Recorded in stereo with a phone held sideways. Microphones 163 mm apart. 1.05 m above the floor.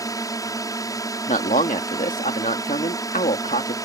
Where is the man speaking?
50° left (ahead or behind).